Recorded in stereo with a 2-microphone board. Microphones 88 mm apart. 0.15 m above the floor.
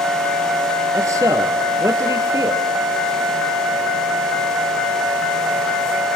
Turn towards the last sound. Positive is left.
turn(degrees=-35)  # may be behind; listen again after turning